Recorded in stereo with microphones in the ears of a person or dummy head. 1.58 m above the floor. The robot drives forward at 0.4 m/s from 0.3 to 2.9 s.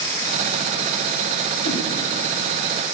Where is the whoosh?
70° left (ahead or behind), 3.5 m.